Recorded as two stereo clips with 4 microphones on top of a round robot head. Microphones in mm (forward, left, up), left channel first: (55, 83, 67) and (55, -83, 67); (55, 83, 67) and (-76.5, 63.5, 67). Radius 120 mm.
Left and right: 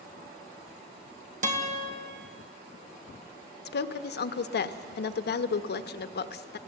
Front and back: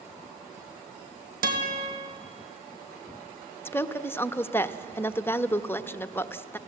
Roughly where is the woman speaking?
Left.